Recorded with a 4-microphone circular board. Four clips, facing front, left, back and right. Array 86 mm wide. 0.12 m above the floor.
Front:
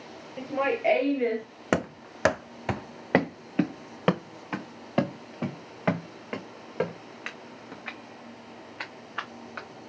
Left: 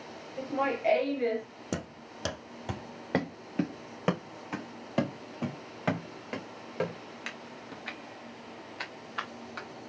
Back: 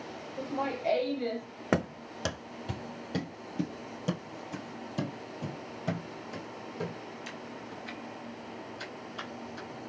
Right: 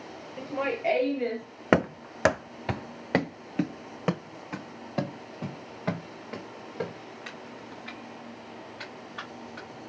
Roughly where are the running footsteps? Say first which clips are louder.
Right 14 dB, front 2 dB; right.